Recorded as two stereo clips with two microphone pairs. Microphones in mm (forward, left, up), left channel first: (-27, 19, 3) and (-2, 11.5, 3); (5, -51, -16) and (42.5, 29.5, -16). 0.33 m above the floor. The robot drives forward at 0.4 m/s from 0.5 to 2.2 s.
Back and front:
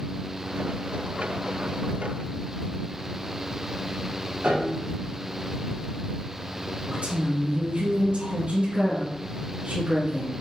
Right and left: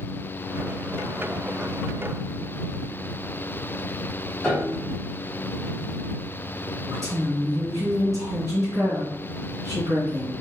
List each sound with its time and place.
4.4 s a piano: 30° right, 2 m
6.9 s a woman speaking: 10° left, 2.5 m